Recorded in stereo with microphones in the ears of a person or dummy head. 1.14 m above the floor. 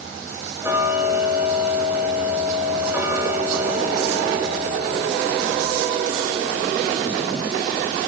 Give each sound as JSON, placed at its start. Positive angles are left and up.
{"t": 0.6, "sound": "ticking", "side_deg": -10, "distance_m": 0.6}